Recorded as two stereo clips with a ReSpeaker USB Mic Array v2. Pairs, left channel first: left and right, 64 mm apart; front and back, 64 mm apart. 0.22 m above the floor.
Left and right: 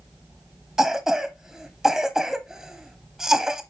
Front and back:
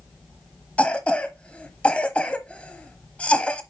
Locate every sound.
0.8 s a cough: 25° right, 0.9 m